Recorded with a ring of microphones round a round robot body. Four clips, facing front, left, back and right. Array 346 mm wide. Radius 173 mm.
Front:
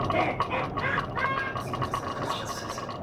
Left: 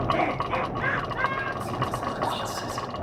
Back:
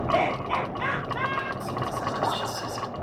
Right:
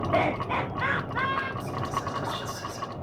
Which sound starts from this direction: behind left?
Whispering, at 1.6 s.